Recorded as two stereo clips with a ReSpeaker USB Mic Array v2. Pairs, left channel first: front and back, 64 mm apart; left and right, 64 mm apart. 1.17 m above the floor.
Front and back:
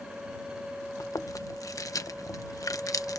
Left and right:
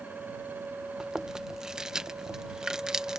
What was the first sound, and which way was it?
Chewing, 10° right.